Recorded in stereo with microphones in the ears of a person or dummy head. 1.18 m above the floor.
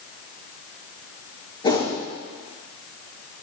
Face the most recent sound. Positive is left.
turn(degrees=20)  # may be behind; listen again after turning